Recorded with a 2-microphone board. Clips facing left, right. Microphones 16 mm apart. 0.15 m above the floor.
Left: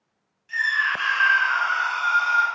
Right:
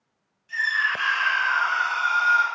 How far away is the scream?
About 1.0 m.